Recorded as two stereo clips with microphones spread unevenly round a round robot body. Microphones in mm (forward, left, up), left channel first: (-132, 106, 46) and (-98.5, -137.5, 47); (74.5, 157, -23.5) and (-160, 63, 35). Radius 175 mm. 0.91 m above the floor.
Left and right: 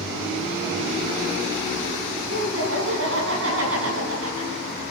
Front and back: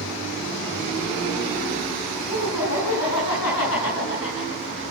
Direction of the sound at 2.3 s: 25° right.